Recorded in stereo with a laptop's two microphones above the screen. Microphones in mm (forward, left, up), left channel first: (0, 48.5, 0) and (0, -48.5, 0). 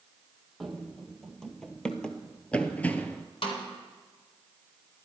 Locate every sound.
0.6 s running footsteps: centre (ahead or behind), 1.6 m; by 3.2 s 20° left (ahead or behind), 1.0 m
3.4 s a snare drum: 70° left (ahead or behind), 2.5 m